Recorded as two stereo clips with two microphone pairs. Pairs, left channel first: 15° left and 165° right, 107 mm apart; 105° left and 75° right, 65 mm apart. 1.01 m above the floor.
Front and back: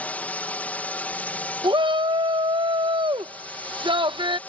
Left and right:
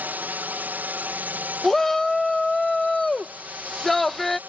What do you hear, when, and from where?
0.0 s a drone: 45° right
1.6 s a shout: 165° right